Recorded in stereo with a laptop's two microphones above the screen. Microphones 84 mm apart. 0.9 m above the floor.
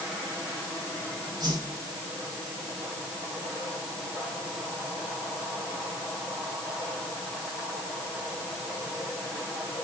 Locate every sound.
1.4 s a whoosh: 55° right (ahead or behind), 6.5 m